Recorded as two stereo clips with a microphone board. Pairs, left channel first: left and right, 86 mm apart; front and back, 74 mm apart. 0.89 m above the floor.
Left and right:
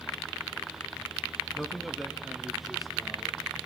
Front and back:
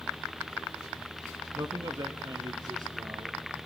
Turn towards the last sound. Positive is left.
turn(degrees=180)